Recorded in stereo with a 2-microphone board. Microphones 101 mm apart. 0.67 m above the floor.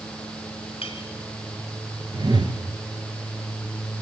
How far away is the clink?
About 2.5 m.